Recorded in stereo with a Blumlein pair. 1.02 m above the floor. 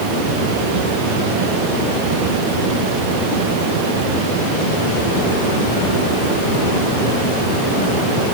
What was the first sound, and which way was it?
Only background noise.